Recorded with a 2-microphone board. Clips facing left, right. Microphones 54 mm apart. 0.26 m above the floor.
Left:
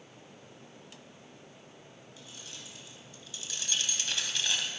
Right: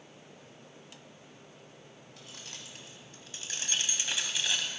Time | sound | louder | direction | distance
2.2 | keys jangling | right 1 dB | 65° right (ahead or behind) | 1.2 m